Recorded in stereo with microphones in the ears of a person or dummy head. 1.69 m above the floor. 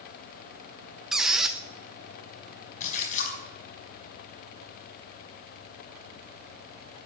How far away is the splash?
About 4.5 m.